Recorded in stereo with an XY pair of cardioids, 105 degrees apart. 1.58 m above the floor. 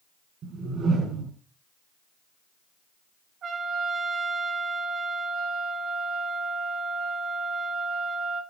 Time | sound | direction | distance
0.4 | a whoosh | 70° right | 3.5 m
3.4 | a trumpet | 65° right | 3 m